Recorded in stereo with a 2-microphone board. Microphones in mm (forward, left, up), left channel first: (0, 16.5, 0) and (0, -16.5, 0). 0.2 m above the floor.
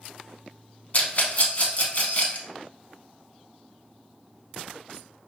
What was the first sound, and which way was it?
A rattle, 45° left (ahead or behind).